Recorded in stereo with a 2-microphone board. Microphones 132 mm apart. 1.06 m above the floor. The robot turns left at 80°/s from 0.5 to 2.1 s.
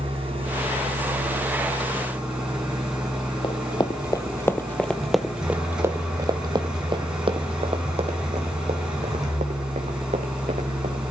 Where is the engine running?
45° right, 5.5 m; by 11.1 s 175° right, 5.5 m.